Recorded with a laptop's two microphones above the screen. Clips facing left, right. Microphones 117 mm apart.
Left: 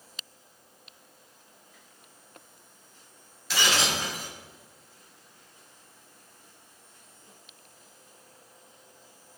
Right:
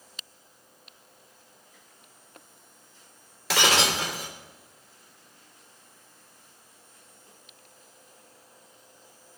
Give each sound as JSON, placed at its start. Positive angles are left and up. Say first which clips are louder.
{"t": 3.5, "sound": "breaking glass", "louder": "right 4 dB", "side_deg": -85, "distance_m": 2.0}